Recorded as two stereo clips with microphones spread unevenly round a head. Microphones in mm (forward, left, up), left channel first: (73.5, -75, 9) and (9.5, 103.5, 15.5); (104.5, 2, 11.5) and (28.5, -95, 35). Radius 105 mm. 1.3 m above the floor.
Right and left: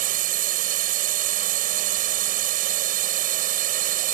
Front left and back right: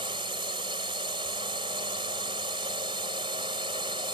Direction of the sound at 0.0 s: 165° left.